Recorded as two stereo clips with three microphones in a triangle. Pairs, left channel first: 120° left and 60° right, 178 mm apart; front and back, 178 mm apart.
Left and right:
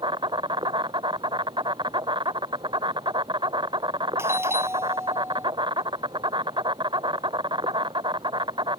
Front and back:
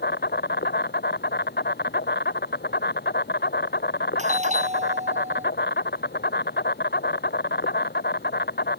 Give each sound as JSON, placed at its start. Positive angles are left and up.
{"t": 0.0, "sound": "an insect", "azimuth_deg": 0}
{"t": 4.2, "sound": "a doorbell", "azimuth_deg": -135}